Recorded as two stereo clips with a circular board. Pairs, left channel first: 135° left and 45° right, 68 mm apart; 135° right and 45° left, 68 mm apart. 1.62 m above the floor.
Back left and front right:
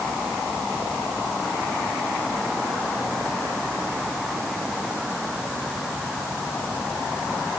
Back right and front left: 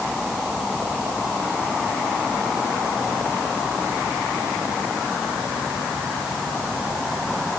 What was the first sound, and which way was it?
Only background noise.